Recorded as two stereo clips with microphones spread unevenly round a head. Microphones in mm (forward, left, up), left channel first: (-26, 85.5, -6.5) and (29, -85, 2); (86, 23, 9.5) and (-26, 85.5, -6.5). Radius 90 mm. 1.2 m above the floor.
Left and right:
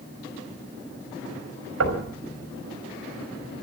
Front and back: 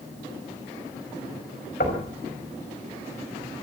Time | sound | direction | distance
1.8 | knocking | 75° right | 5 m